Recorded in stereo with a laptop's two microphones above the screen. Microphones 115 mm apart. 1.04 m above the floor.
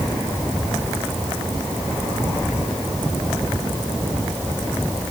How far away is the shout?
I don't hear a shout.